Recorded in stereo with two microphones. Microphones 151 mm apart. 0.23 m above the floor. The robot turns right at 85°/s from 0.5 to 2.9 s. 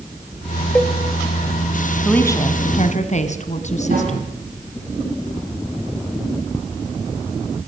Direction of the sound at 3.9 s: 80° right.